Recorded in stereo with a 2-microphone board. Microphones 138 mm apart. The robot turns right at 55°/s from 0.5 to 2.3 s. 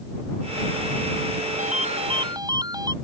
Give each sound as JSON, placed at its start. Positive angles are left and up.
{"t": 1.6, "sound": "a ringtone", "azimuth_deg": -65}